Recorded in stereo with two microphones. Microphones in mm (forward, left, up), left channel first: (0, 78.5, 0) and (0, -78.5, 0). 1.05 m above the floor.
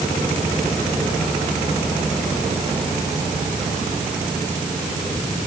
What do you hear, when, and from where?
Only background noise.